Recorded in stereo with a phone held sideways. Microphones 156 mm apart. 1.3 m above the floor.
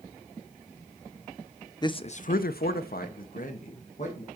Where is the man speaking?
25° left (ahead or behind), 0.5 m; by 4.3 s 50° left (ahead or behind), 1.4 m.